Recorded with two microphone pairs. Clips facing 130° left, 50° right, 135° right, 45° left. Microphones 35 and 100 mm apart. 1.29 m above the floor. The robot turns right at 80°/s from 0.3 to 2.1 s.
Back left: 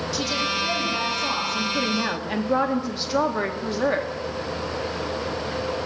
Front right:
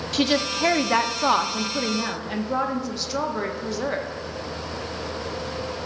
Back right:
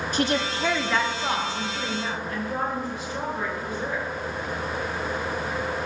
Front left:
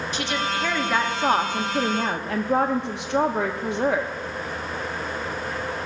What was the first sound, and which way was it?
A woman speaking, 90° right.